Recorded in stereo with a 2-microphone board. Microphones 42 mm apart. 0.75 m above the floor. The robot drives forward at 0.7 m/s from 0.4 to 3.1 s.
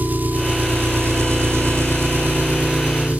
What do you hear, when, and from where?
0.0 s an engine running: 45° right (ahead or behind), 1.1 m; by 3.2 s 35° right (ahead or behind), 1.4 m